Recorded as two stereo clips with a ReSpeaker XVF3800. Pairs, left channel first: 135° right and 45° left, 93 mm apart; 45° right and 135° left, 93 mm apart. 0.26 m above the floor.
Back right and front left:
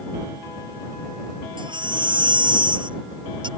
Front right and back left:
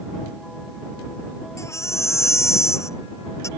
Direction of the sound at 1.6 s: 15° left.